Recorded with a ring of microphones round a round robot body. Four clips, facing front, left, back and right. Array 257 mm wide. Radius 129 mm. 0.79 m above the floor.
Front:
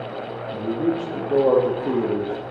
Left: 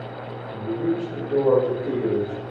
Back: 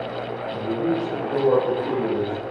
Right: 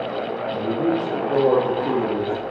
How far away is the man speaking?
About 1.9 m.